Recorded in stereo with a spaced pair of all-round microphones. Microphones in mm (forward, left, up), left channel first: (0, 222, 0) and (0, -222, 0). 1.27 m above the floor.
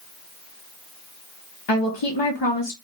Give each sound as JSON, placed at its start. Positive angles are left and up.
{"t": 1.7, "sound": "a woman speaking", "side_deg": 70, "distance_m": 0.8}